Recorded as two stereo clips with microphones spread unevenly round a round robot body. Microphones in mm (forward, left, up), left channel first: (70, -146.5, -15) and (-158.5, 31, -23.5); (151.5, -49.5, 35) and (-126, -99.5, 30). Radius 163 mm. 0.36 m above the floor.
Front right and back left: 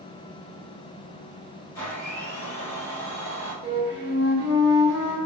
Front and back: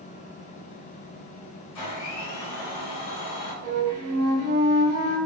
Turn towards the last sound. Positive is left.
turn(degrees=170)